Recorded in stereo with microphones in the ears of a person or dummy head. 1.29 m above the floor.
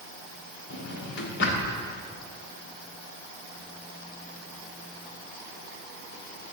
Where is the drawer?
65° left (ahead or behind), 1.5 m.